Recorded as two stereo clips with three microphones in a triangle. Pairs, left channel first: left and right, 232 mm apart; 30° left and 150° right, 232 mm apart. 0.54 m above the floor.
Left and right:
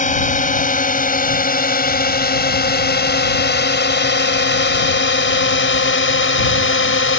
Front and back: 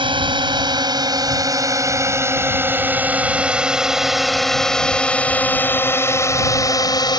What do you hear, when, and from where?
0.0 s a drone: 145° left; by 7.2 s 100° left